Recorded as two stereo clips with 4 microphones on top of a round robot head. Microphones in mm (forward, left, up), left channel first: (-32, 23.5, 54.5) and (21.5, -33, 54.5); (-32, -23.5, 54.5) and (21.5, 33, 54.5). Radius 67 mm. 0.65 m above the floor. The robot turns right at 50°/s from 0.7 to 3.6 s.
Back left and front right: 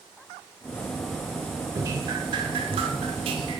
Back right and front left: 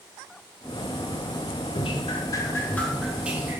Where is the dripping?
110° right, 0.8 m; by 3.6 s 15° right, 0.8 m.